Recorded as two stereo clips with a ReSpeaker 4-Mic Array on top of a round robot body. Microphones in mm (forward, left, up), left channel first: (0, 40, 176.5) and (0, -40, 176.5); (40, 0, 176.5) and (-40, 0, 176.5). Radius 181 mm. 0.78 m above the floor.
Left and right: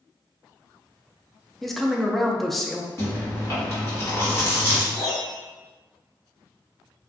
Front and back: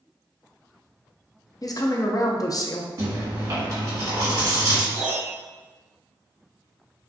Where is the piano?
140° left, 1.7 m.